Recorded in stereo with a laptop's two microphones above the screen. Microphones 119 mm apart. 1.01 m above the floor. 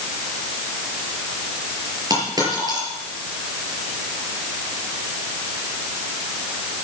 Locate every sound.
2.1 s a dropped coin: 35° right (ahead or behind), 6 m